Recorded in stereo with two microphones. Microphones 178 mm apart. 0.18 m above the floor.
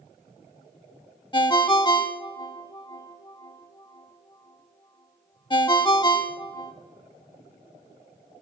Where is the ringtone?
25° left (ahead or behind), 0.5 m.